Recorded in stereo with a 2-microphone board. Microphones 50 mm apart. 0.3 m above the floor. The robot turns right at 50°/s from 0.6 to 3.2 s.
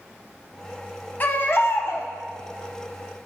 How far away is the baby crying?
About 0.6 m.